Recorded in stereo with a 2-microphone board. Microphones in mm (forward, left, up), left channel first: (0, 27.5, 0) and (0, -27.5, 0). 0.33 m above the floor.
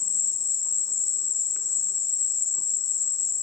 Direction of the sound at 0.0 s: 90° right.